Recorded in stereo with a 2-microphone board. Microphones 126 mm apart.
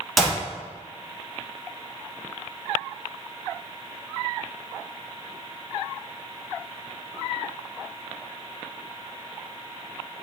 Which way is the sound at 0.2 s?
Centre (ahead or behind).